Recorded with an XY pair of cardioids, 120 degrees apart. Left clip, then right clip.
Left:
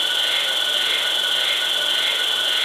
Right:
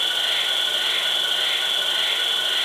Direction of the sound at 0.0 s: 35° left.